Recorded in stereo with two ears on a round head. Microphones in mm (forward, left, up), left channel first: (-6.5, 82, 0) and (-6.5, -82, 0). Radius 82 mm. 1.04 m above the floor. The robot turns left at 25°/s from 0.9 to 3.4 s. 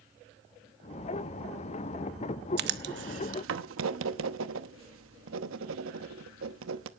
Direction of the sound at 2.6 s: 60° right (ahead or behind).